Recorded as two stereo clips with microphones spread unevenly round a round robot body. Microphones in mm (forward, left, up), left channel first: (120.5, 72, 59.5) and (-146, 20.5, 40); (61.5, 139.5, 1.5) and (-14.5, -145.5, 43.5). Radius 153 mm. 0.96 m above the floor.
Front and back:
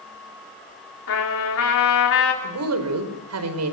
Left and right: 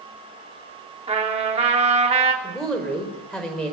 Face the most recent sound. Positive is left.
turn(degrees=165)